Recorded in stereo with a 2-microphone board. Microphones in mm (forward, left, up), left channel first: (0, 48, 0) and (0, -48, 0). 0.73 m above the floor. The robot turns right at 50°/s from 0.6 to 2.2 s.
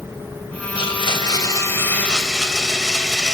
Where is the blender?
105° left, 3 m; by 3.4 s 175° left, 3 m.